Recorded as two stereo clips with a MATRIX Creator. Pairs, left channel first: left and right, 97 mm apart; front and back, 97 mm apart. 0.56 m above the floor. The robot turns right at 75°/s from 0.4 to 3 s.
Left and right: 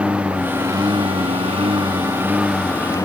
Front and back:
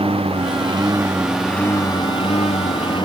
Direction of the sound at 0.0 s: 165° right.